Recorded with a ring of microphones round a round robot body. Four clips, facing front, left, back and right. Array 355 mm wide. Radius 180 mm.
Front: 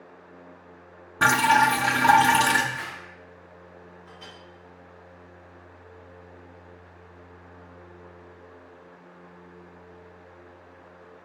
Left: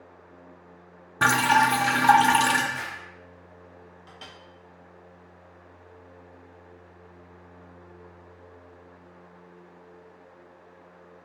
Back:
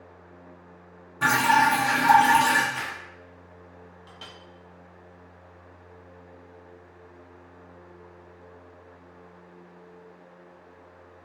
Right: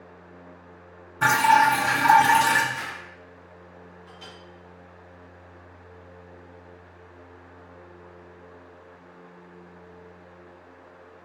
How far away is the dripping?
About 0.5 m.